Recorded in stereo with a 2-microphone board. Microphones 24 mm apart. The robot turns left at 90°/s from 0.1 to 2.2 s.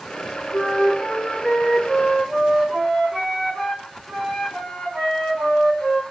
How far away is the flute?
About 4 m.